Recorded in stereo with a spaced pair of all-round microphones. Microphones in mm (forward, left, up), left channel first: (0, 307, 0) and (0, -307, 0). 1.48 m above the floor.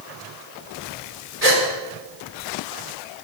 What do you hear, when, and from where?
1.4 s a gasp: 70° right (ahead or behind), 5.5 m